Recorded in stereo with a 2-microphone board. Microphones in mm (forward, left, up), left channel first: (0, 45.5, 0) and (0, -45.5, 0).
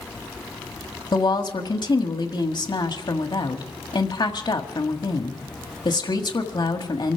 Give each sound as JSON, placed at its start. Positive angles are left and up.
{"t": 1.1, "sound": "a woman speaking", "side_deg": 55, "distance_m": 1.5}